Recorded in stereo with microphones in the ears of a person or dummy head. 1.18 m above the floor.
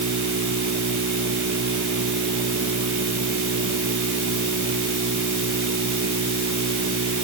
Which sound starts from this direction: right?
A machine running, at 0.0 s.